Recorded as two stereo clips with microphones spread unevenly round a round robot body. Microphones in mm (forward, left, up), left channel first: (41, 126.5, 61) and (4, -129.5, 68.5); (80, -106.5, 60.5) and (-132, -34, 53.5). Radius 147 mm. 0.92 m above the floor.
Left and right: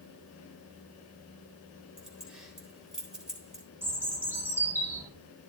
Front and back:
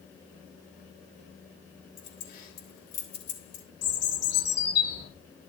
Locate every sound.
2.0 s keys jangling: 10° right, 3.5 m
3.8 s a bird: 15° right, 2.5 m